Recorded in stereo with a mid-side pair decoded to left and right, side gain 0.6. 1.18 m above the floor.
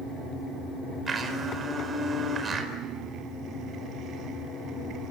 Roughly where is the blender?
Ahead right.